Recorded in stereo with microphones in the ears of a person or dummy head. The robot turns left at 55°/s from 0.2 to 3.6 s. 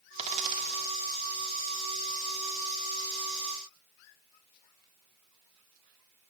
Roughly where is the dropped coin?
Right.